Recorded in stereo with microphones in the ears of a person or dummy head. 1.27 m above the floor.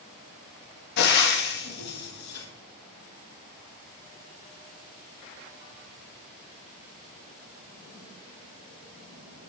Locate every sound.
1.0 s frying: 55° left (ahead or behind), 2 m